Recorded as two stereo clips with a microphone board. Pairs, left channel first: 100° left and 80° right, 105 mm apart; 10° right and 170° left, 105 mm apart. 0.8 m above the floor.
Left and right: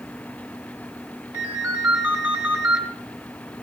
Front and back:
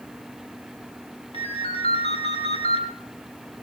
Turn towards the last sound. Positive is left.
turn(degrees=-5)